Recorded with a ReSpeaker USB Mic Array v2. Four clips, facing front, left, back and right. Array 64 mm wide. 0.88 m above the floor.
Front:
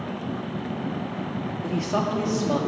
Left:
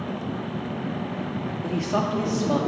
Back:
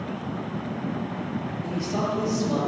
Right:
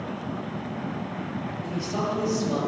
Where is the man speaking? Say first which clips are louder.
Left 4 dB, front 3 dB; 55° left, 1.5 m.